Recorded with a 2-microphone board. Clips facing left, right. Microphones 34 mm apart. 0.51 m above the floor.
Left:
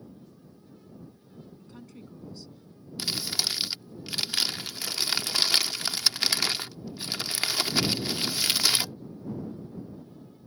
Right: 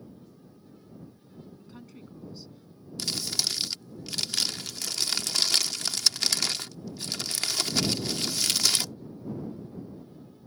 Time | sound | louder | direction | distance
1.6 | a woman speaking | even | 5° right (ahead or behind) | ?
3.0 | crumpling | left 1 dB | 20° left (ahead or behind) | ?